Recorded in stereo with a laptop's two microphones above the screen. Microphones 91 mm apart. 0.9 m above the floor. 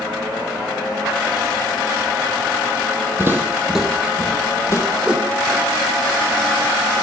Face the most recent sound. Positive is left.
turn(degrees=-10)  # may be behind; listen again after turning